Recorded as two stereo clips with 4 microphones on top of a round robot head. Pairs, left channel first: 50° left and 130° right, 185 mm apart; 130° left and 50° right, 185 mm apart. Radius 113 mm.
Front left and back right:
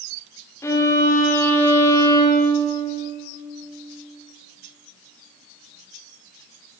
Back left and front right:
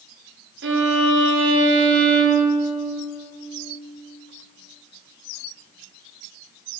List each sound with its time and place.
0.6 s a violin: 25° right, 2 m